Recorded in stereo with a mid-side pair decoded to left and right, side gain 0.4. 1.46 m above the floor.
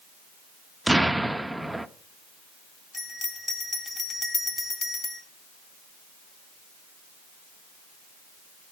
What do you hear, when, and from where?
0.9 s an explosion: 10° right, 0.6 m
2.9 s a bell: 30° left, 2 m